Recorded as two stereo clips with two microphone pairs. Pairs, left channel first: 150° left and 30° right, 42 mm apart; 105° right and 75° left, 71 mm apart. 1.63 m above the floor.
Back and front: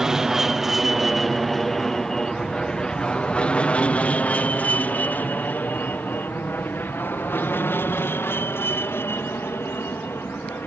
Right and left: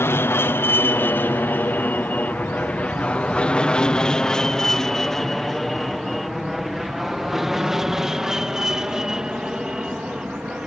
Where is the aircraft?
100° right; by 10.7 s 150° left.